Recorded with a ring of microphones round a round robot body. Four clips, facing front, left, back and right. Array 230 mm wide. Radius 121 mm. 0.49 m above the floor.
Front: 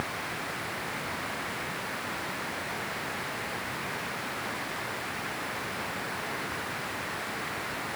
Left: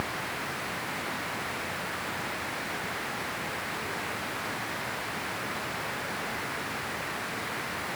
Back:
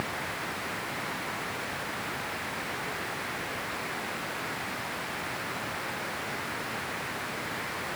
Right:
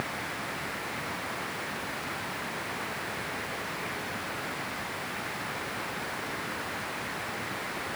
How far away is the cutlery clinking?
No cutlery clinking in this recording.